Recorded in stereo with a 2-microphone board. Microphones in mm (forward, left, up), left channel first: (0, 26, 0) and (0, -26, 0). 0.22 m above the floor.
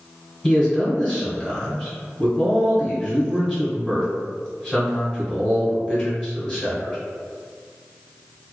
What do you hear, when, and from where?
0.4 s a man speaking: 20° left (ahead or behind), 1.1 m